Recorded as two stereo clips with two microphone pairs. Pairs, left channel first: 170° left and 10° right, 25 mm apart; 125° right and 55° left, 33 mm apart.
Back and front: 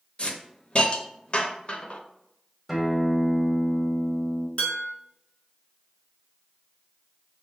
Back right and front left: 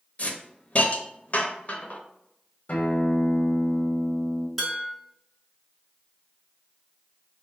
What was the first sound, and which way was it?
A hiss, 155° right.